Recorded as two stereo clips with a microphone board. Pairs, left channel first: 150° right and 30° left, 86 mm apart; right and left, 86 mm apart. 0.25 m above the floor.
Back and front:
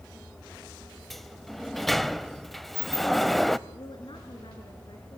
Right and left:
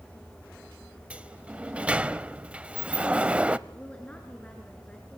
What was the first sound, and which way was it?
A sliding door, 125° left.